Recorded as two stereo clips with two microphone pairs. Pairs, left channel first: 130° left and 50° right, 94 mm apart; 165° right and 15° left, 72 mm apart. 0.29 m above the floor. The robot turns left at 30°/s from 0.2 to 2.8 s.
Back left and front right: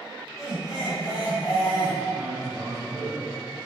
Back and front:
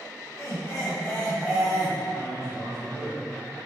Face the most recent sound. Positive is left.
turn(degrees=-175)